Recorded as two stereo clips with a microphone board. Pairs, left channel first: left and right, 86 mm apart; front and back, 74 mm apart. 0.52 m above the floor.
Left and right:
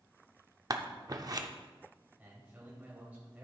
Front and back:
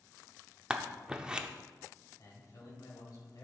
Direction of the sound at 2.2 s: 20° right.